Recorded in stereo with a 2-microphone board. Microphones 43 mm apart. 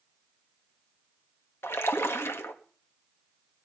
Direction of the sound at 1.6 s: 65° left (ahead or behind).